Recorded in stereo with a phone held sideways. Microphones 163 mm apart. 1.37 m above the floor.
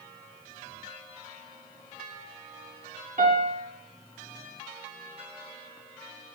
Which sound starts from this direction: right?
A piano, at 3.2 s.